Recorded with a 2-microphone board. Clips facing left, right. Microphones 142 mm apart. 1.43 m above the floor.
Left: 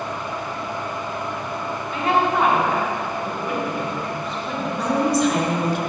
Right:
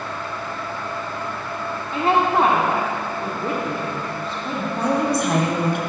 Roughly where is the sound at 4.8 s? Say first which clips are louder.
Left 1 dB; right.